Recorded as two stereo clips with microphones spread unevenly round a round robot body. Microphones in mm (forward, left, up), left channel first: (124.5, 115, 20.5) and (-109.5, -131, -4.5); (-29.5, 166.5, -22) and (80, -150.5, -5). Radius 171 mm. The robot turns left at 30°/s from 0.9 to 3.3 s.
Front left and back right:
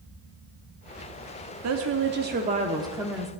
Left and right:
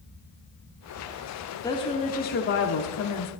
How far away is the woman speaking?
About 1.0 m.